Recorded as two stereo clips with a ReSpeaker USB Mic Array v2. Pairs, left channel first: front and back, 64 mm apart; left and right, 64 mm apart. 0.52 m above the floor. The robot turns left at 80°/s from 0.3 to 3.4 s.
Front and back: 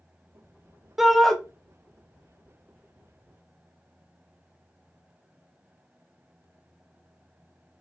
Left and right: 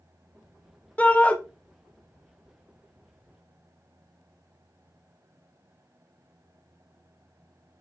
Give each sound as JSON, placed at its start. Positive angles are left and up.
{"t": 1.0, "sound": "a shout", "azimuth_deg": 100, "distance_m": 0.6}